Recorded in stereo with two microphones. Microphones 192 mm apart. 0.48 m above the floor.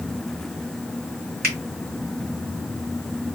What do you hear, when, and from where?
1.4 s a finger snap: 55° right (ahead or behind), 3.5 m